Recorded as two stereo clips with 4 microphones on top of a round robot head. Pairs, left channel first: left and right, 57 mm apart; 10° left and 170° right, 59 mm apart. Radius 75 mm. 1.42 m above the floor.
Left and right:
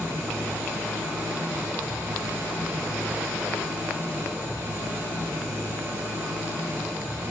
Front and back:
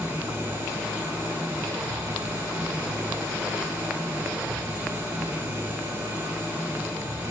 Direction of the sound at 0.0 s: 150° right.